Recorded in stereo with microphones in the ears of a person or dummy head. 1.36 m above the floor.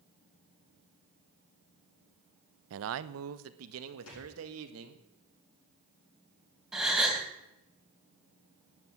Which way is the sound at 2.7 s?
70° right (ahead or behind).